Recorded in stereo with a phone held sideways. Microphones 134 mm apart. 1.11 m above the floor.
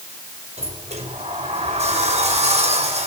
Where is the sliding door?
55° right (ahead or behind), 5.5 m.